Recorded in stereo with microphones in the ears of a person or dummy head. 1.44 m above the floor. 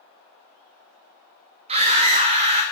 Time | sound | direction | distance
1.7 | a scream | 30° right (ahead or behind) | 1.1 m